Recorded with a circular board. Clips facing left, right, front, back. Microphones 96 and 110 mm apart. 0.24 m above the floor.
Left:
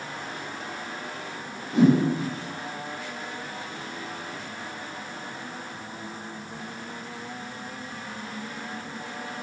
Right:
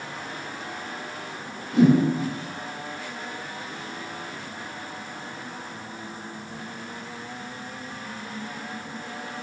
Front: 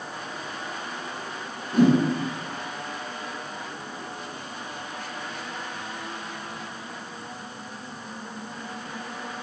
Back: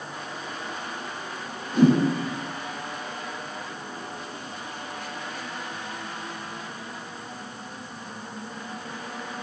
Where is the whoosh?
35° left, 3 m.